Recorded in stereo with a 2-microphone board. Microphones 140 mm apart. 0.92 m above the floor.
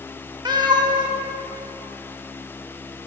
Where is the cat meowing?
30° right (ahead or behind), 0.7 m.